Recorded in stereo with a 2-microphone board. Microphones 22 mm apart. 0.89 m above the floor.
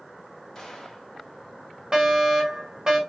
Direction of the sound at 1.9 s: 30° right (ahead or behind).